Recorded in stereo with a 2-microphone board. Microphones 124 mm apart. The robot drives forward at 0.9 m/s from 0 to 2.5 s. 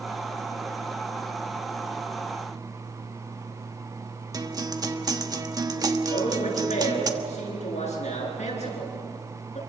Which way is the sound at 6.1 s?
65° left (ahead or behind).